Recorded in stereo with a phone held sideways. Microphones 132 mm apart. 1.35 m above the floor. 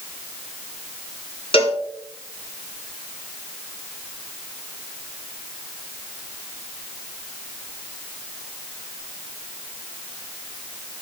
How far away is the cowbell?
About 2.5 m.